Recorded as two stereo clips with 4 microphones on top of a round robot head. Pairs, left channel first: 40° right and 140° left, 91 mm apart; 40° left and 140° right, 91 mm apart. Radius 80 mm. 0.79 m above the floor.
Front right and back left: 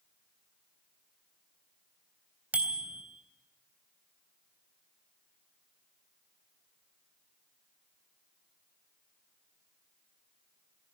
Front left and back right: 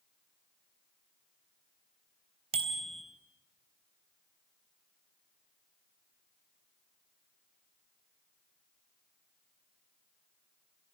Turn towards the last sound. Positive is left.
turn(degrees=-145)